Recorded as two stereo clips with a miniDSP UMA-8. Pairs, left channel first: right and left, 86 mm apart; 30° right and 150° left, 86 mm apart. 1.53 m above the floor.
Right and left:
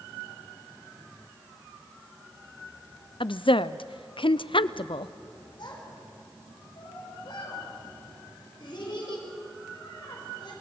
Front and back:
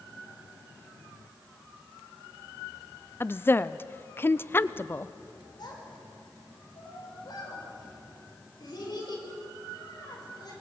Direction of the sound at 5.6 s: 65° right.